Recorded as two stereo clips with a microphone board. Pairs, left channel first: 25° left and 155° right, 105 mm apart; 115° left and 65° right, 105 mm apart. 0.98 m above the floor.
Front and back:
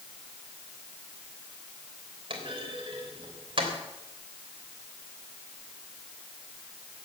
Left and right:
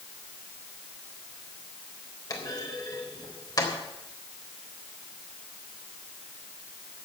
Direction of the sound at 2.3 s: 165° left.